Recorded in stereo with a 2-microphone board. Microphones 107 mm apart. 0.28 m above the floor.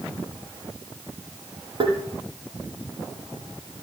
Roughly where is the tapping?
Right.